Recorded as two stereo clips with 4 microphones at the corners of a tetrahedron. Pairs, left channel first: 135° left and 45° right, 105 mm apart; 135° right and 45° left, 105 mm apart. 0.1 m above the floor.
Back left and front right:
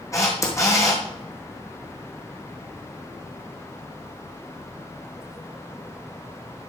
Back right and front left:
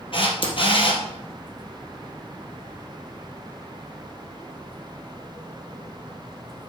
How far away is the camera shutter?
About 3 m.